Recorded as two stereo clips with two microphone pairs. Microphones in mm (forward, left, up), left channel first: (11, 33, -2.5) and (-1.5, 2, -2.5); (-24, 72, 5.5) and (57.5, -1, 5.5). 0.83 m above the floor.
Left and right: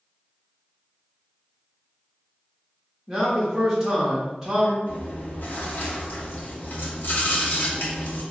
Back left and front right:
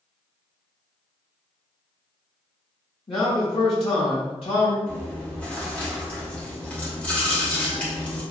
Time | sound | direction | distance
3.1 | a man speaking | 160° left | 1.2 m
4.9 | chewing | 60° left | 1.1 m